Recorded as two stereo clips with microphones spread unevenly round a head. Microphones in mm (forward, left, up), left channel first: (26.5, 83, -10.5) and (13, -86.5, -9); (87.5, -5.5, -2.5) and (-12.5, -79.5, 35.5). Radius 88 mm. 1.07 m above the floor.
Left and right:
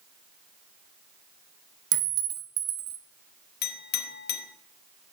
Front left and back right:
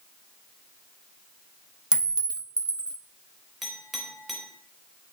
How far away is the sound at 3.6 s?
About 1.0 m.